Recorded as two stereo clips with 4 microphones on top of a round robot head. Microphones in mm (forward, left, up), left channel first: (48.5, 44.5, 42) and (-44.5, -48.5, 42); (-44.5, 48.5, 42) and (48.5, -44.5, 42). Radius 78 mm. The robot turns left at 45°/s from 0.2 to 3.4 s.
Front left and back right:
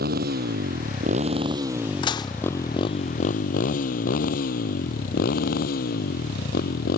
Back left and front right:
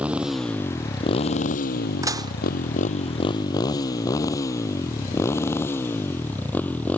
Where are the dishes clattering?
10° left; by 2.3 s 5° right.